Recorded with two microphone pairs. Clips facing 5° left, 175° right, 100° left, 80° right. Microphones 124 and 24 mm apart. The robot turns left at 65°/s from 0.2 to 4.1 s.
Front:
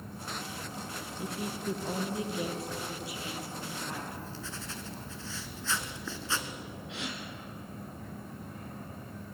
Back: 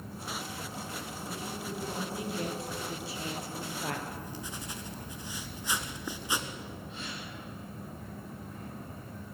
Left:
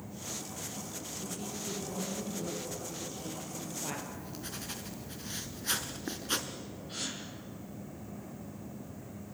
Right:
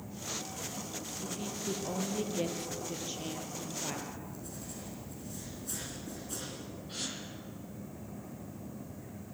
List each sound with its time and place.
1.2 s a woman speaking: 10° left, 4 m; by 4.0 s 175° right, 4 m
4.1 s writing: 115° left, 2 m
6.9 s a gasp: 10° left, 3.5 m